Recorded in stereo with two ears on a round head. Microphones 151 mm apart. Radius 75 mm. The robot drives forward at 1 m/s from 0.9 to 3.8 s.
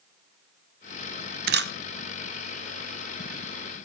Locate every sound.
1.5 s a camera shutter: 60° right (ahead or behind), 0.7 m; by 1.7 s 70° right (ahead or behind), 0.7 m